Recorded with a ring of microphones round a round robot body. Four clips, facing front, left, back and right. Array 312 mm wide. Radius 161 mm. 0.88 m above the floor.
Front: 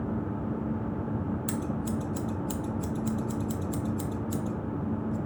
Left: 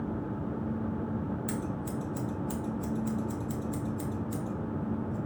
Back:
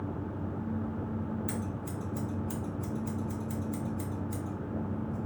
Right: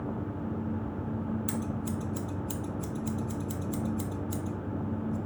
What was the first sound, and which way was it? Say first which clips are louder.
Scissors: right 1 dB, front 6 dB; 30° right.